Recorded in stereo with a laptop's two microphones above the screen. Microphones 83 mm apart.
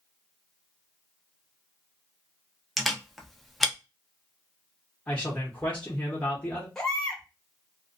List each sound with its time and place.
2.8 s a camera shutter: centre (ahead or behind), 0.5 m
5.1 s a man speaking: 15° left (ahead or behind), 0.7 m
6.8 s a baby crying: 5° left (ahead or behind), 0.9 m